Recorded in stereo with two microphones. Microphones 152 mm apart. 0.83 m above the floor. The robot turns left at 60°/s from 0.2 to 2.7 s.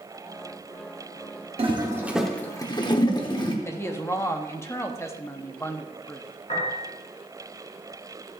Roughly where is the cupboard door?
I don't hear a cupboard door.